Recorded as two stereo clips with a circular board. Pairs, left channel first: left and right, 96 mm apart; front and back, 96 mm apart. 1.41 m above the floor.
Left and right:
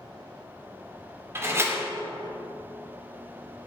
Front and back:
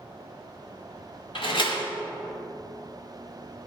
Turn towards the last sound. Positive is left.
turn(degrees=-25)